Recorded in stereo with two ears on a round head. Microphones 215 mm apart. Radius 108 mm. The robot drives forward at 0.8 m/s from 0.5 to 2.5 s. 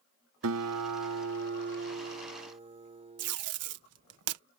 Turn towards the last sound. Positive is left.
turn(degrees=-70)  # may be behind; listen again after turning